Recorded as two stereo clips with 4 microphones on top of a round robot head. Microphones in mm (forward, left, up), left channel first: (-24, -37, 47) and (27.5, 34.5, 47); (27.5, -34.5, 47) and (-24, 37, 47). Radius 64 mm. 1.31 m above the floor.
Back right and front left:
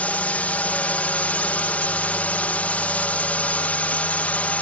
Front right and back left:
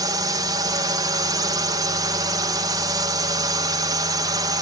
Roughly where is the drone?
Behind.